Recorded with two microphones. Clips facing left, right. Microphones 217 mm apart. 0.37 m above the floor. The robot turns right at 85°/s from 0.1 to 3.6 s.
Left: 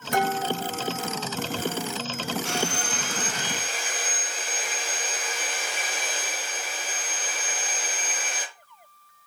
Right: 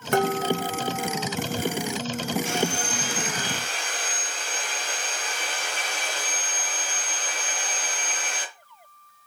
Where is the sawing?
75° left, 4.5 m; by 8.4 s 175° left, 4.5 m.